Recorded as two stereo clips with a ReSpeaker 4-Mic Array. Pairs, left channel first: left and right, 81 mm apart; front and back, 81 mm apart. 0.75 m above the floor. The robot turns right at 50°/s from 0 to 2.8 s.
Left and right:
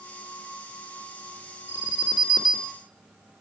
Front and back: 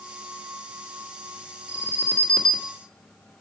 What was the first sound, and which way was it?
An alarm, 50° left.